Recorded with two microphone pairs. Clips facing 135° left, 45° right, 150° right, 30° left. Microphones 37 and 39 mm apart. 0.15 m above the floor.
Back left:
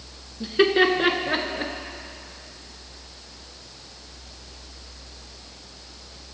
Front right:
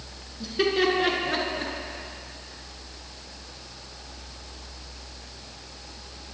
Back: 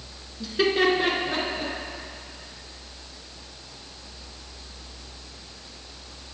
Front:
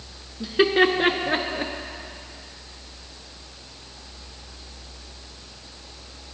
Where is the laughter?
90° left, 1.8 m; by 1.7 s 65° left, 2 m.